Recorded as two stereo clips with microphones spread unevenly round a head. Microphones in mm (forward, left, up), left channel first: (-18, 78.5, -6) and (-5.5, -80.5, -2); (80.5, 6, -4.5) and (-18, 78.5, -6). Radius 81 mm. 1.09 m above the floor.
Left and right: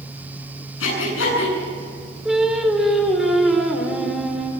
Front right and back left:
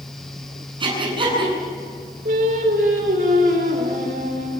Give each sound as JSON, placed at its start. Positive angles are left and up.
{"t": 0.8, "sound": "breathing", "azimuth_deg": 95, "distance_m": 9.0}
{"t": 2.2, "sound": "singing", "azimuth_deg": -170, "distance_m": 4.0}